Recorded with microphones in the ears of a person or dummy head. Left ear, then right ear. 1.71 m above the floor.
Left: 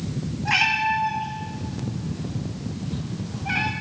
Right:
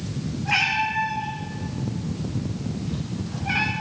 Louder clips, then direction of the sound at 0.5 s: Left 2 dB; 40° left (ahead or behind).